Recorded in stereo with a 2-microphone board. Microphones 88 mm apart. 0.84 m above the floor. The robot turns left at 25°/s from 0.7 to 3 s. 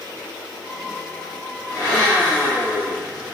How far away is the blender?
About 0.8 m.